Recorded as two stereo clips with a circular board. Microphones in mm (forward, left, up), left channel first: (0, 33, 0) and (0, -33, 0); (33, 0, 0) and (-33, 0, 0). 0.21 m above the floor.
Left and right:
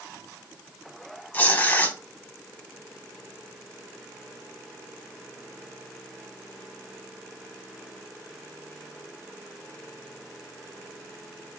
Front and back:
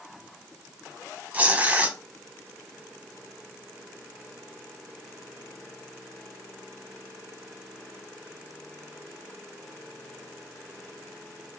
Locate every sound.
1.3 s tearing paper: 135° left, 0.7 m